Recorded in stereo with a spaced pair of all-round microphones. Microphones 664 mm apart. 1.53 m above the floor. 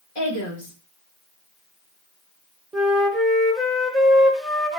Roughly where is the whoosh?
No whoosh in this recording.